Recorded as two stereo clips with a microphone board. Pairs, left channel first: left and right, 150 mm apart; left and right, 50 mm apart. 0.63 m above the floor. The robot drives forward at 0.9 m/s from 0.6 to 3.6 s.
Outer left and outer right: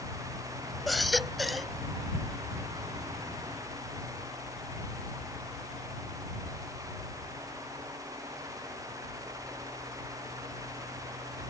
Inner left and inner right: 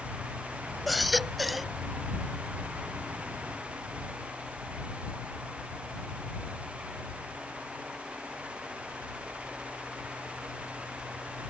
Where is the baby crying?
Centre (ahead or behind).